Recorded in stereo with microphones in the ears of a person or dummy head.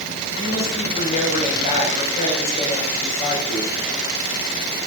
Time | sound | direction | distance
0.4 | a woman speaking | 40° left (ahead or behind) | 4.5 m